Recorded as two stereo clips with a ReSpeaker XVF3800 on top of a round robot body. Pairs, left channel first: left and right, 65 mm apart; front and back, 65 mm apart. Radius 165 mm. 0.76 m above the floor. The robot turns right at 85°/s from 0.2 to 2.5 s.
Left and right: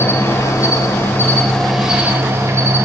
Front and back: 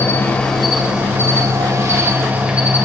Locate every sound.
0.0 s an insect: 55° left, 1.8 m; by 2.9 s 110° right, 1.8 m